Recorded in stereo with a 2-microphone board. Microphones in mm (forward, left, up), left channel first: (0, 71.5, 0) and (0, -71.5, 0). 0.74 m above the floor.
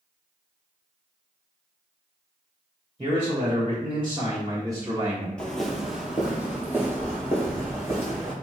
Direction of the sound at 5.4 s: 10° left (ahead or behind).